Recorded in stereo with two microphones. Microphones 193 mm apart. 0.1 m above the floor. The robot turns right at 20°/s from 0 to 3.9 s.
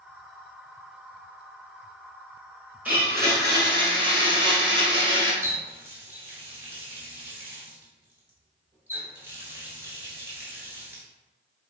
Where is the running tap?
15° right (ahead or behind), 0.9 m.